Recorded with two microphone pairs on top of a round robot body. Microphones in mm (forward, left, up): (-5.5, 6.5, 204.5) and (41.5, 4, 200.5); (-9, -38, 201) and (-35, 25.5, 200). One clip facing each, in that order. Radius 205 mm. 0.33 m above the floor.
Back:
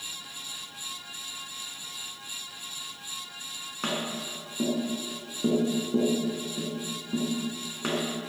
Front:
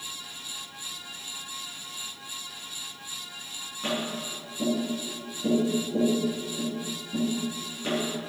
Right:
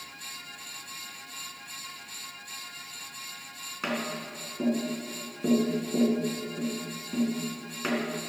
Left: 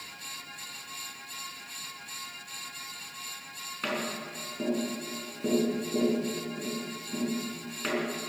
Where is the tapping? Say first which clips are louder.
Front 1 dB, right 1 dB; 150° right, 4.5 m.